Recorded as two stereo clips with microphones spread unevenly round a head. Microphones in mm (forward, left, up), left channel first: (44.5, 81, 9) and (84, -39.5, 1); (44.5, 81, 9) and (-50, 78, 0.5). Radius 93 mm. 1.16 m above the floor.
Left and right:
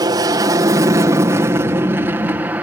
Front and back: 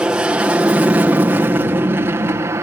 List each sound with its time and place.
0.0 s an aircraft: 105° right; by 2.6 s 140° right